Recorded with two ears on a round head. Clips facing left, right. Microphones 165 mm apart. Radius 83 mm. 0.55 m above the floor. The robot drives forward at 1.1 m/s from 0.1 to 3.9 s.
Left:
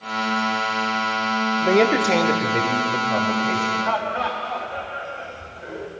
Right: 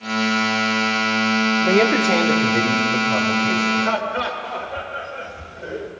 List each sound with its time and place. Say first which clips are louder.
1.6 s a man speaking: left 1 dB; centre (ahead or behind), 0.7 m
3.8 s laughter: right 2 dB; 50° right (ahead or behind), 2.5 m